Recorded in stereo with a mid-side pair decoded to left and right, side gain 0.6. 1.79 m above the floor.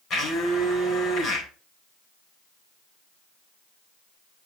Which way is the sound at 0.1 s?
50° left.